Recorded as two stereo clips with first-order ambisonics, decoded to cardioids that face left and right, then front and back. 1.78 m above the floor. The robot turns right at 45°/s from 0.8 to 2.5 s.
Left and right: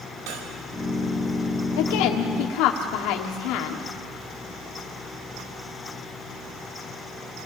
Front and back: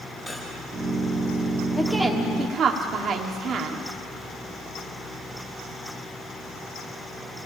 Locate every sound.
0.3 s cutlery clinking: 95° right, 4.5 m
1.8 s a woman speaking: 85° left, 1.5 m; by 3.9 s 120° left, 1.5 m